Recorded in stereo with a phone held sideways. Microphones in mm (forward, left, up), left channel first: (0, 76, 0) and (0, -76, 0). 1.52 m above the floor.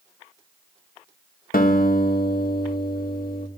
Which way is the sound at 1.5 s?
75° left (ahead or behind).